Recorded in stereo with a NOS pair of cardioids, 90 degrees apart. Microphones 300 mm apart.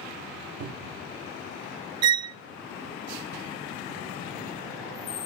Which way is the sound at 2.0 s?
65° right.